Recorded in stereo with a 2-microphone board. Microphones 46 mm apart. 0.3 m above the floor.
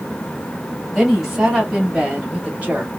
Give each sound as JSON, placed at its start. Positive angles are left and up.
{"t": 0.9, "sound": "a woman speaking", "side_deg": -5, "distance_m": 1.7}